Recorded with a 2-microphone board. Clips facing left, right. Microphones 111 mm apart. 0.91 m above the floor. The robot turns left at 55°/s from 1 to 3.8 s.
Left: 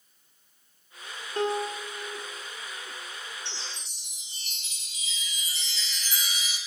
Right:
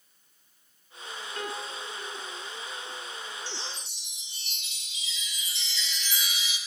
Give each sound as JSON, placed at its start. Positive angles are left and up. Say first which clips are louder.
{"t": 1.4, "sound": "a piano", "louder": "left 10 dB", "azimuth_deg": 35, "distance_m": 0.8}
{"t": 3.5, "sound": "a chime", "louder": "right 2 dB", "side_deg": 25, "distance_m": 1.2}